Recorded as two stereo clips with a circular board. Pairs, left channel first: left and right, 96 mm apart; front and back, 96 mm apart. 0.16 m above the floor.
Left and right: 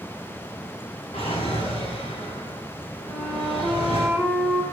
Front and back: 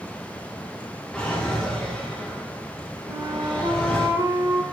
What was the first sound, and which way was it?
A drawer, 85° left.